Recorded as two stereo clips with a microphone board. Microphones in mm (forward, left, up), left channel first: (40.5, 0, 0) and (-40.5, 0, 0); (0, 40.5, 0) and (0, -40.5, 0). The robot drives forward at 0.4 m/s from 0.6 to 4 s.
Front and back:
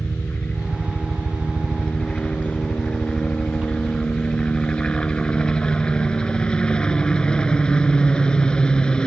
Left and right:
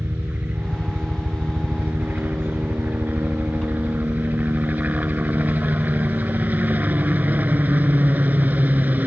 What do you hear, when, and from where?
0.0 s a helicopter: 50° right; by 9.1 s 60° right